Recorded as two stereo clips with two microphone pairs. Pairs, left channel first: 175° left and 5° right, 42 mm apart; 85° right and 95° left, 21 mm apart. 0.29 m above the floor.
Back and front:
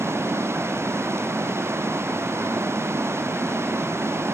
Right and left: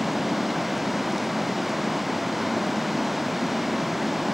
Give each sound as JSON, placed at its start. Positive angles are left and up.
{"t": 0.0, "sound": "running water", "azimuth_deg": 10}